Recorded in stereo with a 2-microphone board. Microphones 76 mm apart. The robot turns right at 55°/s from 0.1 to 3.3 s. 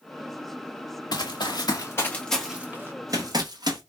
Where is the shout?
I don't hear a shout.